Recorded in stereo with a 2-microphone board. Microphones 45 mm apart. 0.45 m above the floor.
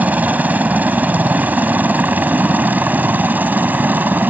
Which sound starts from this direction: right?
A helicopter, at 0.0 s.